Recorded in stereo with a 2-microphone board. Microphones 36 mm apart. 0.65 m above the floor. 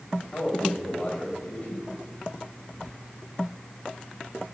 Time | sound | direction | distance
0.3 | a man speaking | 55° left (ahead or behind) | 2.5 m